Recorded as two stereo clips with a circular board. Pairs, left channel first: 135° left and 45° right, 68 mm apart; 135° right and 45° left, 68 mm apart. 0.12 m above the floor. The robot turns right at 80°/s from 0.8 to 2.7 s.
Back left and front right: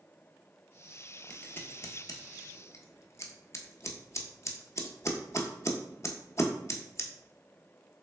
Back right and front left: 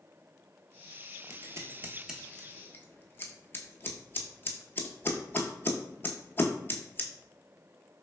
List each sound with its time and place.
1.3 s scissors: 60° left, 0.5 m; by 7.1 s 175° left, 0.5 m